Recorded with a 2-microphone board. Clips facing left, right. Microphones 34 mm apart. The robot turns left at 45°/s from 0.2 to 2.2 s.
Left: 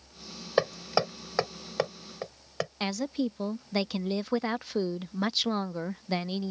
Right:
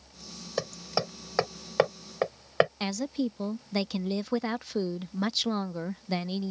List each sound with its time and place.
0.6 s hammering: 30° left (ahead or behind); by 2.7 s 40° right (ahead or behind)
2.8 s a woman speaking: 10° left (ahead or behind)